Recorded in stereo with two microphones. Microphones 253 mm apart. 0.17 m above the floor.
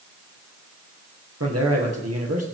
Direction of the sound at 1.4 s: 70° right (ahead or behind).